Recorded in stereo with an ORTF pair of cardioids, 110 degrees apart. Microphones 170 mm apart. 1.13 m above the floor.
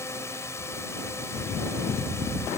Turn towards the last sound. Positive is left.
turn(degrees=15)